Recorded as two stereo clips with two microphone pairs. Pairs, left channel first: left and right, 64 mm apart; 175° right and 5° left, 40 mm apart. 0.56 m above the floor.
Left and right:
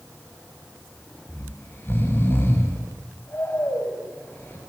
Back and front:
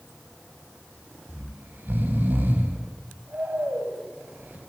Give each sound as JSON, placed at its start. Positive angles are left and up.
{"t": 1.3, "sound": "snoring", "azimuth_deg": 35, "distance_m": 4.0}